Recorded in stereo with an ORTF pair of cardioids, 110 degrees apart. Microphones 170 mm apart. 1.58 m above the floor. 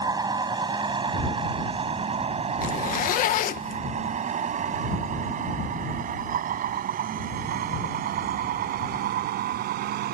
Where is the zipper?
60° left.